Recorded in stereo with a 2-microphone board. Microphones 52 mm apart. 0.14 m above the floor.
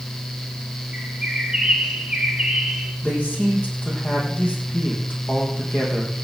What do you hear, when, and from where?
0.9 s a bird: 15° right (ahead or behind), 2 m
3.0 s a man speaking: 30° left (ahead or behind), 4.5 m